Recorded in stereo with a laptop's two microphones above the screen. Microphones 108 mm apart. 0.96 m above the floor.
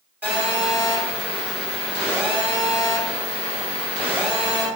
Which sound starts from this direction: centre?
A phone buzzing, at 0.2 s.